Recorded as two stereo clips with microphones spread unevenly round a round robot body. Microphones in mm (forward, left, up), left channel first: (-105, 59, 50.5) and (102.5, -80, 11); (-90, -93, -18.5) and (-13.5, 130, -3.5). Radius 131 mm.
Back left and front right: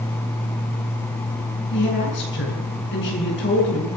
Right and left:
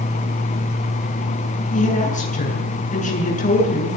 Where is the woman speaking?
165° right, 9 m.